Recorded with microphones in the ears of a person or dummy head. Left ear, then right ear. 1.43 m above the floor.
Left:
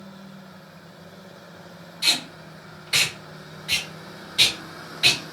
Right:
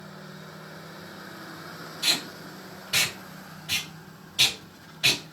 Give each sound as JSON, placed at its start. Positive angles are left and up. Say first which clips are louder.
{"t": 2.0, "sound": "tape being pulled", "louder": "left 3 dB", "side_deg": 40, "distance_m": 1.5}